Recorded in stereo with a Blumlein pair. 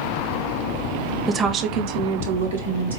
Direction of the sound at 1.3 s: 15° right.